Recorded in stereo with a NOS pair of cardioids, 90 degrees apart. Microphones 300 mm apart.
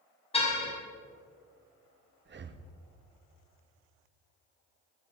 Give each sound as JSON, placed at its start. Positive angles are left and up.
{"t": 0.3, "sound": "a car horn", "azimuth_deg": 20, "distance_m": 5.0}
{"t": 2.2, "sound": "breathing", "azimuth_deg": -40, "distance_m": 1.1}